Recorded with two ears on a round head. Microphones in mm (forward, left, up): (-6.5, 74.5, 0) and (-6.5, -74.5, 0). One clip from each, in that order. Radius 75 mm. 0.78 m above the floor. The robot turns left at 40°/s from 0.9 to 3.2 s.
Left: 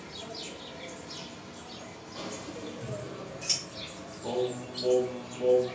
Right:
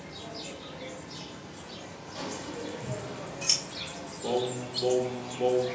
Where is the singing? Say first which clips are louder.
Right 1 dB; 55° right (ahead or behind), 0.7 m.